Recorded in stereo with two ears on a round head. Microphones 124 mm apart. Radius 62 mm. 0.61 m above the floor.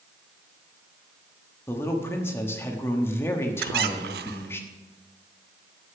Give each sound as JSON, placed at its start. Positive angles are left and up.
{"t": 1.7, "sound": "a man speaking", "side_deg": 15, "distance_m": 1.0}
{"t": 3.6, "sound": "a squeak", "side_deg": -80, "distance_m": 0.7}